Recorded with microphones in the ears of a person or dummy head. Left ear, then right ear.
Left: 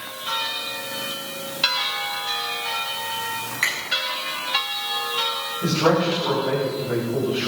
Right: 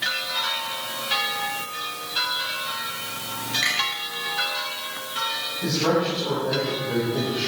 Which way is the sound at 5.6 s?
20° left (ahead or behind).